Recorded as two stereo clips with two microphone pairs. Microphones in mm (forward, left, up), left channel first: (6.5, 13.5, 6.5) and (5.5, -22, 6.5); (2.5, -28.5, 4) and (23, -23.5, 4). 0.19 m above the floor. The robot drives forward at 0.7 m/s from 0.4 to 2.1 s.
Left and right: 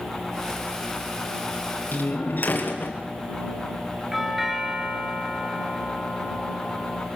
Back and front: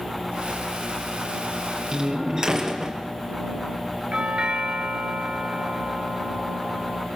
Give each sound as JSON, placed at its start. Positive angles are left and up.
{"t": 1.9, "sound": "a door slam", "azimuth_deg": 60, "distance_m": 4.0}
{"t": 4.1, "sound": "a doorbell", "azimuth_deg": -10, "distance_m": 3.5}